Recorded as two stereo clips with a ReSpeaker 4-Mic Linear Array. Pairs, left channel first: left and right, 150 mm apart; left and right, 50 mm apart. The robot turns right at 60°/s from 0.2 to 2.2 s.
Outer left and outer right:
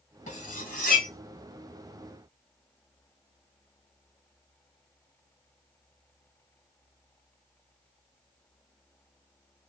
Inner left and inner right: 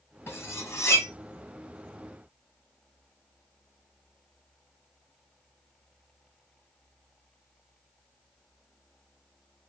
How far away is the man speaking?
I don't hear a man speaking.